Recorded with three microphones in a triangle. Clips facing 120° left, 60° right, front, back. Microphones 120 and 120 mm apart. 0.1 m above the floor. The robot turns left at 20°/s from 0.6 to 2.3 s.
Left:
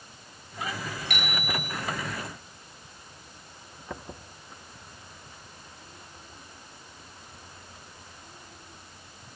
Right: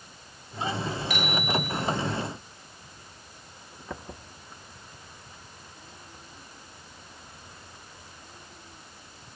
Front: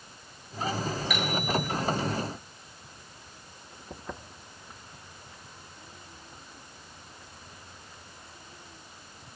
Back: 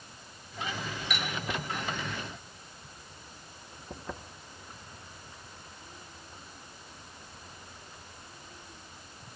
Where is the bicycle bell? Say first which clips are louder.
Right 4 dB, front 6 dB; 90° left, 7.5 m; by 1.7 s 75° left, 7.5 m.